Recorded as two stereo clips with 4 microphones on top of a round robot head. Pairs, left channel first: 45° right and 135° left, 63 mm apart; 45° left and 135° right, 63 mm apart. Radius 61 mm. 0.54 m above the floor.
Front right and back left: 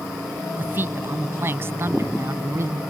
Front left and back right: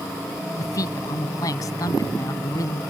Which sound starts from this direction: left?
A man speaking, at 0.6 s.